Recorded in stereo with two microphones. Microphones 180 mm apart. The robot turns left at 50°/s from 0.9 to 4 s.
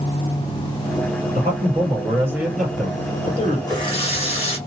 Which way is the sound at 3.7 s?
25° left (ahead or behind).